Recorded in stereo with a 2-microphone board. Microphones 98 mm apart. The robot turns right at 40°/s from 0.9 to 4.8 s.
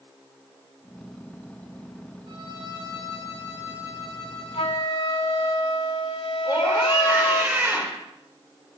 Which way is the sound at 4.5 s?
75° left (ahead or behind).